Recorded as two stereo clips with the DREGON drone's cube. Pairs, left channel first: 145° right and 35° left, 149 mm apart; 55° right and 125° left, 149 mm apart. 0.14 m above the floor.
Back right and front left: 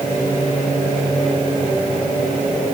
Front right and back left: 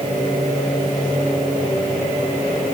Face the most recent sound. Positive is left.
No sound to turn to.